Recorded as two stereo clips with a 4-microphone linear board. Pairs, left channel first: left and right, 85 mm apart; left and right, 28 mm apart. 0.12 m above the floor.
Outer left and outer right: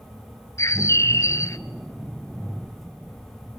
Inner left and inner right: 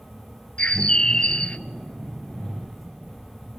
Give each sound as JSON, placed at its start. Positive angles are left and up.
{"t": 0.6, "sound": "a bird", "side_deg": 35, "distance_m": 0.6}